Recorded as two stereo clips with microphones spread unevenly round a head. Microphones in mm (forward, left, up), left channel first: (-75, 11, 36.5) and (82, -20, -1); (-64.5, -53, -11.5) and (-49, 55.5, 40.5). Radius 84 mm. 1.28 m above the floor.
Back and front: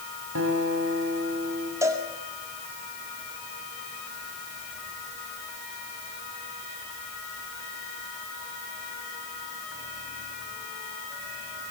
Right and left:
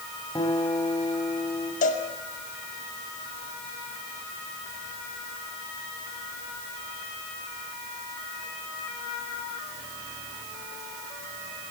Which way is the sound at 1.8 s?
85° right.